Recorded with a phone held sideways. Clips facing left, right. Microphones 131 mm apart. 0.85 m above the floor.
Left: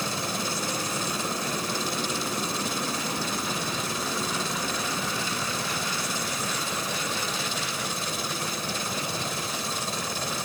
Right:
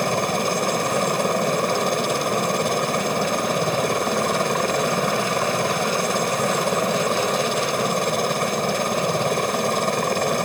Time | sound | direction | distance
0.0 | a helicopter | 60° right (ahead or behind) | ?